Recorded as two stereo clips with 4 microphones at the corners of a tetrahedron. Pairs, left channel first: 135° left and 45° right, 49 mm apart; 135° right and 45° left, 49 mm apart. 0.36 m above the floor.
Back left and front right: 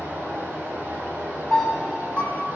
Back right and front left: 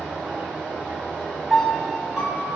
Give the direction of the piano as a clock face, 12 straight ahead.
8 o'clock.